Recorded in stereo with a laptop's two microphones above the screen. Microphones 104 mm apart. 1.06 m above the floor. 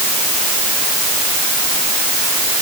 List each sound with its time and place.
Only background noise.